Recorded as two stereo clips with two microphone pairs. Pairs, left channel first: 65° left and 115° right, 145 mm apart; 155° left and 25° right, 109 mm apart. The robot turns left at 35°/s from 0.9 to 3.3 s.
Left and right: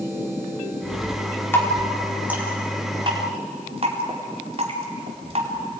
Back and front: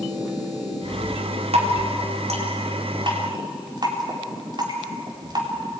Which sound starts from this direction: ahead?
Dripping, at 1.5 s.